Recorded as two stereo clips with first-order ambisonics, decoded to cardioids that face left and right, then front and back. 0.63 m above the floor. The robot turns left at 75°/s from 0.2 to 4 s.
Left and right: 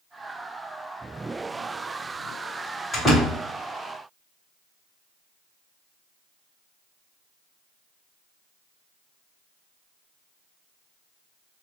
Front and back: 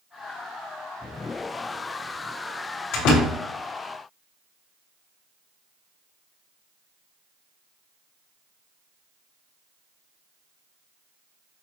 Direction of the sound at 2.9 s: 20° left.